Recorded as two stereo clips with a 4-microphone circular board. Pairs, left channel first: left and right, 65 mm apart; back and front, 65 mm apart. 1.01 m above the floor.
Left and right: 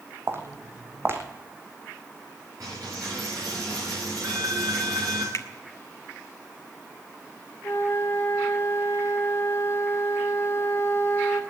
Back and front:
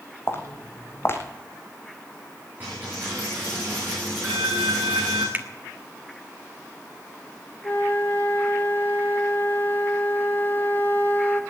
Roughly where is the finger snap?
Ahead left.